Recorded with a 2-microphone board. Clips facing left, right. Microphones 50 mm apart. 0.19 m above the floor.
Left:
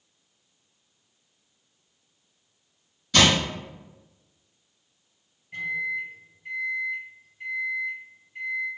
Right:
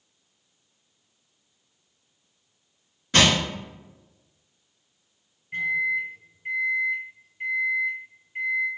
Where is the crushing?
40° right (ahead or behind), 1.5 m.